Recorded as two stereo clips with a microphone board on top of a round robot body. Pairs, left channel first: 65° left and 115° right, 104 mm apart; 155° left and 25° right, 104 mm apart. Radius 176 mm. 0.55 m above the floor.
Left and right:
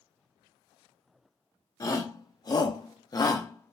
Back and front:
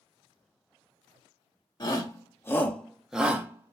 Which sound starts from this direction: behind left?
A shout, at 1.8 s.